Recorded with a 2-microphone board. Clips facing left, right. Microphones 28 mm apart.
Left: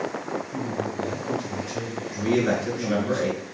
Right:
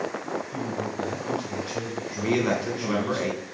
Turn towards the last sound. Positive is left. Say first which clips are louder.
# left 2 dB
turn(degrees=-45)  # may be behind; listen again after turning